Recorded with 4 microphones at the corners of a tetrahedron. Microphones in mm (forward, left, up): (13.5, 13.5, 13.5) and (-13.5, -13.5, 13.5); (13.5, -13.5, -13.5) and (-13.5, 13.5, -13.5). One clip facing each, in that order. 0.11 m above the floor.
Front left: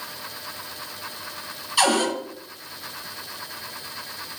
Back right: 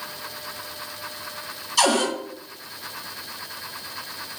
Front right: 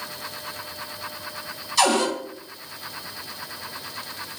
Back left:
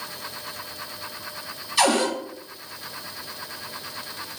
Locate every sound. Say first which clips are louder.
1.8 s a cupboard door: even, even; 80° left, 1.5 m